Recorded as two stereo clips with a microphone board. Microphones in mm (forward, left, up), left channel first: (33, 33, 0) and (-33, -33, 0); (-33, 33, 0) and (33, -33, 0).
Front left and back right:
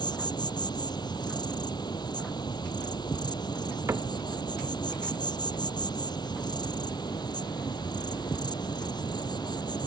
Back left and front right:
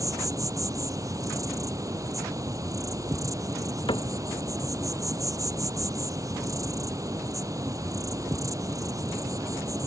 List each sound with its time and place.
0.0 s an insect: 5° left
3.9 s a cupboard door: 165° left